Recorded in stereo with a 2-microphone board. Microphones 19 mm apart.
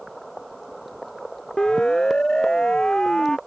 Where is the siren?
35° left (ahead or behind); by 3.4 s 40° left (ahead or behind).